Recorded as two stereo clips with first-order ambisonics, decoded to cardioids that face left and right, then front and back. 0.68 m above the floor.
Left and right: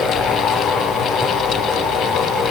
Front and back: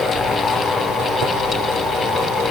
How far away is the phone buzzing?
I don't hear a phone buzzing.